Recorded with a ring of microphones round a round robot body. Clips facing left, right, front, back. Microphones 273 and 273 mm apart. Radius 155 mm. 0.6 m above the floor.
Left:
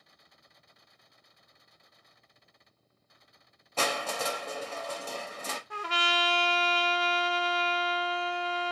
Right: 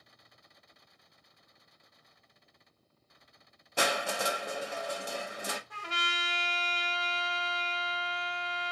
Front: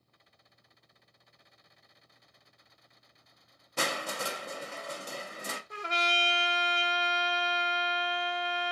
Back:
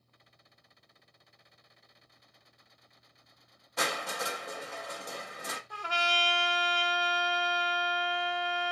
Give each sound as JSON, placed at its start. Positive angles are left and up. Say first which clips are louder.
{"t": 3.8, "sound": "crushing", "louder": "even, front 1 dB", "azimuth_deg": -25, "distance_m": 0.8}
{"t": 5.7, "sound": "a trumpet", "louder": "left 8 dB, front 1 dB", "azimuth_deg": 70, "distance_m": 0.7}